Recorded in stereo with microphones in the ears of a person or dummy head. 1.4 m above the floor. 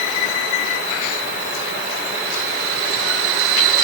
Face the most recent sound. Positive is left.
No sound to turn to.